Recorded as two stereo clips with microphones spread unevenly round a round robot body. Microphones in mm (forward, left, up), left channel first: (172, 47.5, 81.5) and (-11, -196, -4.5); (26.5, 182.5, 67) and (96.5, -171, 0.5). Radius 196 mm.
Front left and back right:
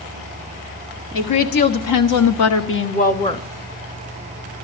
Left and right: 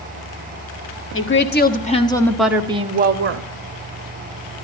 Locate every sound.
1.1 s a woman speaking: 40° left, 1.7 m; by 3.5 s 30° right, 1.3 m